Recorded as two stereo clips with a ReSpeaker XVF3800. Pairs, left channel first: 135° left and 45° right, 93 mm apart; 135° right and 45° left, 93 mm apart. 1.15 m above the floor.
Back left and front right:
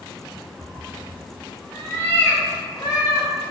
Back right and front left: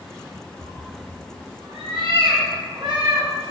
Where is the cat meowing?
10° left, 1.9 m; by 3.3 s 90° left, 3.5 m.